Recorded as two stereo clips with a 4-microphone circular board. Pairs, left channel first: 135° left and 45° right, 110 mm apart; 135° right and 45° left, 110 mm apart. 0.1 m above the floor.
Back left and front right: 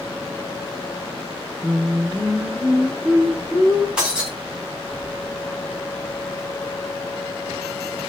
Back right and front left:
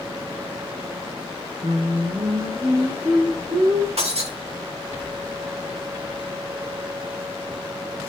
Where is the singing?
35° left, 5.5 m.